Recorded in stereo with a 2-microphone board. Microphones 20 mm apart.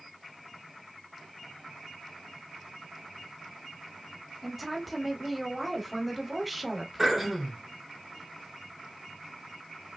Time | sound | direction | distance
4.4 | a woman speaking | 5° left (ahead or behind) | 1.1 m
7.0 | throat clearing | 5° right (ahead or behind) | 1.5 m